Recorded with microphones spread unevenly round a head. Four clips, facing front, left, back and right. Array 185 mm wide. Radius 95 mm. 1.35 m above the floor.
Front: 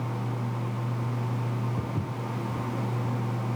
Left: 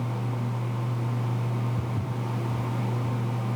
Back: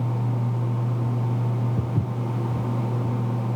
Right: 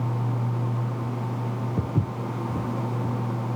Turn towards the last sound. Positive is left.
turn(degrees=-110)